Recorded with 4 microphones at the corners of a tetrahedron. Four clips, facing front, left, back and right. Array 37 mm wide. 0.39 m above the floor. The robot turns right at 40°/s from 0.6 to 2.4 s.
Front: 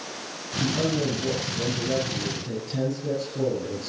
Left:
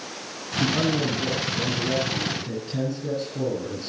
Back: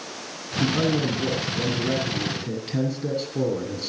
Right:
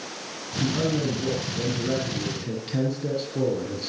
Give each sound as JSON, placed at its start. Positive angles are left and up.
{"t": 0.6, "sound": "a man speaking", "azimuth_deg": 150, "distance_m": 7.0}